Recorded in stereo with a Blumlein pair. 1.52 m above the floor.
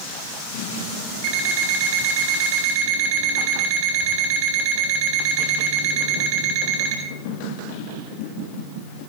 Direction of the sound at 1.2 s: 45° right.